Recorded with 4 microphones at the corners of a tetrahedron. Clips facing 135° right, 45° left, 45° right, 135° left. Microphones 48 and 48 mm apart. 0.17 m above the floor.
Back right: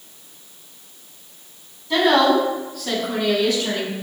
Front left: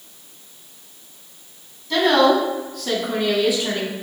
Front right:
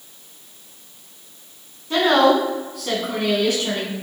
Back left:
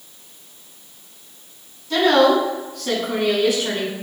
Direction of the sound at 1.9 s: 75° right.